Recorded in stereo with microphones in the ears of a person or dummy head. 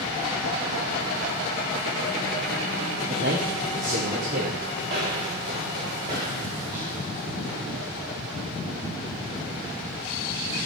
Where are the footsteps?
35° right (ahead or behind), 1.8 m; by 7.8 s 10° right (ahead or behind), 2.5 m.